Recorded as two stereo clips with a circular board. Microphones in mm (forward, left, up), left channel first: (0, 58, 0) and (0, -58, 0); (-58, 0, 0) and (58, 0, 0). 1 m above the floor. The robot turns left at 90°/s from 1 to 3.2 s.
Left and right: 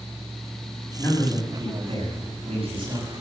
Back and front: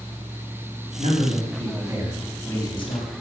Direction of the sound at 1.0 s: 25° left.